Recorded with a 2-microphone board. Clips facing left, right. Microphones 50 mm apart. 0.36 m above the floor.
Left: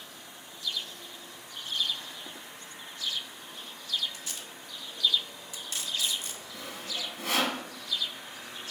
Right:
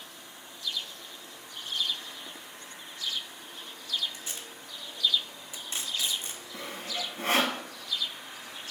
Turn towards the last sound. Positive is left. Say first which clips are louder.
# right 2 dB
turn(degrees=-35)  # may be behind; listen again after turning